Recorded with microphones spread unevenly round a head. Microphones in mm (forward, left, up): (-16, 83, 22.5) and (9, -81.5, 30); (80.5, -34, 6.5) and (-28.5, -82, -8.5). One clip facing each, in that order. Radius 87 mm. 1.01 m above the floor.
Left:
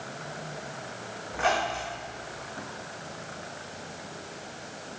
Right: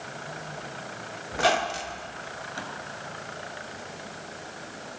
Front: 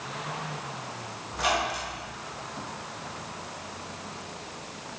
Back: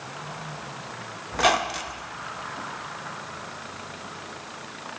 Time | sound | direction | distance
1.3 | a squeak | 130° right | 0.5 m